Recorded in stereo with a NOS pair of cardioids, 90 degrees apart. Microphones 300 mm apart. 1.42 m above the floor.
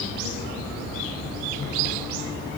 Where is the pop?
No pop in this recording.